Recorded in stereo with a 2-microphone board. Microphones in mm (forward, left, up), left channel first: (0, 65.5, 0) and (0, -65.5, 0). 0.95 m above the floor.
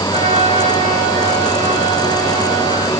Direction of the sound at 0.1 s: 55° right (ahead or behind).